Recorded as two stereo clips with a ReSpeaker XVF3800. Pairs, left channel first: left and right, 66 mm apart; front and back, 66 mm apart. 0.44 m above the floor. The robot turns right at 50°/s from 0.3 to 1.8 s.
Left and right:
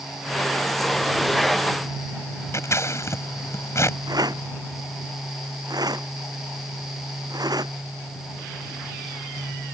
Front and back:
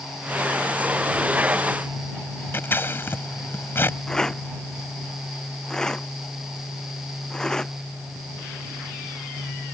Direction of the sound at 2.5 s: 50° left.